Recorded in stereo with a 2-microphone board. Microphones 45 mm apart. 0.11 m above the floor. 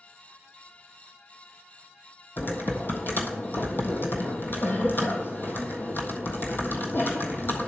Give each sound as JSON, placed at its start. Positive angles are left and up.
{"t": 2.4, "sound": "typing on a keyboard", "side_deg": 50, "distance_m": 1.4}